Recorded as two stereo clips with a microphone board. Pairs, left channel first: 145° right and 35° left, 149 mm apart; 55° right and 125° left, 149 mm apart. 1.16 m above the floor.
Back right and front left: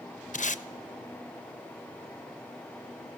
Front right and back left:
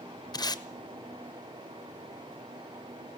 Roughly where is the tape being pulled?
Behind right.